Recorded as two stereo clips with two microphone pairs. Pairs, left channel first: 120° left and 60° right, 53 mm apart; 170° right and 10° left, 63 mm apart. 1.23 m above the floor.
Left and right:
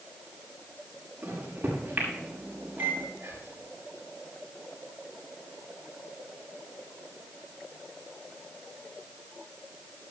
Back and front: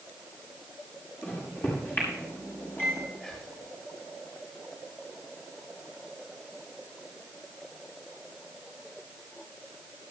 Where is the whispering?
95° right, 7 m.